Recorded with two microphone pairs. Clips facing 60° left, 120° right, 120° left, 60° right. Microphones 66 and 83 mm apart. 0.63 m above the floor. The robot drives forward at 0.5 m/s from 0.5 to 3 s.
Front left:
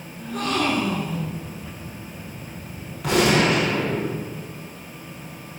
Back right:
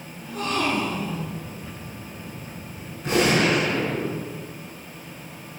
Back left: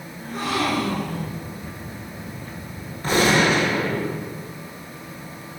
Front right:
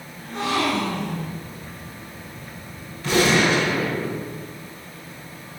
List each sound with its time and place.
0.2 s a gasp: 35° left, 1.8 m; by 1.4 s 45° left, 1.5 m
3.0 s a gunshot: 70° left, 3 m